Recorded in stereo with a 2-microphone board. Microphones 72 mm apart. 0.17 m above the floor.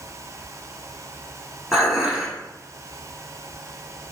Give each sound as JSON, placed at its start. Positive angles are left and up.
{"t": 1.7, "sound": "dishes clattering", "side_deg": -10, "distance_m": 1.2}